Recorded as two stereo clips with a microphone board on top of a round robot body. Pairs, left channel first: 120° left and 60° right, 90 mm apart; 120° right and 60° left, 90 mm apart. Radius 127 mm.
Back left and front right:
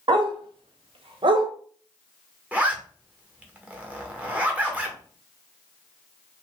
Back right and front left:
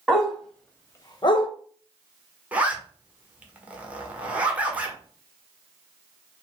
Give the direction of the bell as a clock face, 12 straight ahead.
No bell in this recording.